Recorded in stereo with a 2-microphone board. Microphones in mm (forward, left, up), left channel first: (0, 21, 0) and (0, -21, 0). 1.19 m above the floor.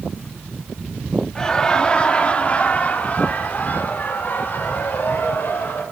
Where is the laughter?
15° left (ahead or behind), 3 m; by 5.8 s 55° left (ahead or behind), 6.5 m.